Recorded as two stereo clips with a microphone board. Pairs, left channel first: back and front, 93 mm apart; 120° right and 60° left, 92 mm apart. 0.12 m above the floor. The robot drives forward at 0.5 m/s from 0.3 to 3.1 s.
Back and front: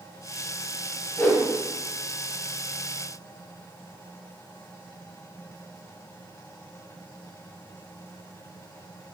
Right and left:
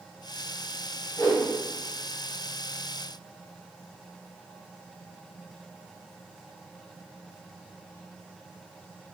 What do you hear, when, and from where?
1.2 s a whoosh: 155° right, 1.5 m